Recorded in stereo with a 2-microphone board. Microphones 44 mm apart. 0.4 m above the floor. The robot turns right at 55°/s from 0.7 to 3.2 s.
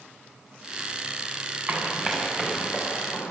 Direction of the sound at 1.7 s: 25° right (ahead or behind).